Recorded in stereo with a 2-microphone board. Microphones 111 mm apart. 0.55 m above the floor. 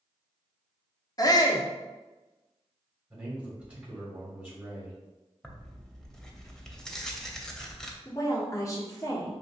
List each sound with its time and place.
1.2 s a shout: 35° left (ahead or behind), 0.7 m
3.1 s a man speaking: 15° right (ahead or behind), 1.8 m
5.4 s tearing paper: 5° left (ahead or behind), 0.7 m
8.1 s a woman speaking: 30° left (ahead or behind), 1.3 m